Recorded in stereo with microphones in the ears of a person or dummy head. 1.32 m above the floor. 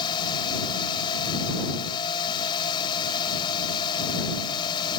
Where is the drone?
30° left (ahead or behind).